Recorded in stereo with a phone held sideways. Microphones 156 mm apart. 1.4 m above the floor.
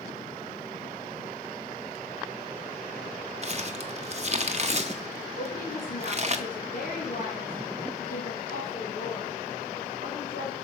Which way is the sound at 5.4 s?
65° left (ahead or behind).